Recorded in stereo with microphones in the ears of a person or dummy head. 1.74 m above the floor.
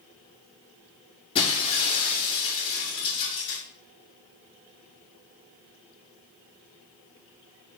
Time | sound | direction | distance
1.4 | breaking glass | 30° left (ahead or behind) | 7 m